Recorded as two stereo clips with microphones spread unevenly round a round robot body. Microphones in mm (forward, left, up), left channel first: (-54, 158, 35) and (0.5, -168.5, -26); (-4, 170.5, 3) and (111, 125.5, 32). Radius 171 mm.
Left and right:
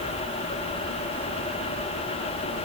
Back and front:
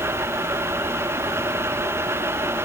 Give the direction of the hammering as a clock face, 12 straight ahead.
I don't hear hammering.